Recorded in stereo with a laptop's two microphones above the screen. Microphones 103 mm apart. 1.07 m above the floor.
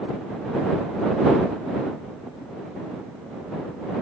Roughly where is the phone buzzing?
I don't hear a phone buzzing.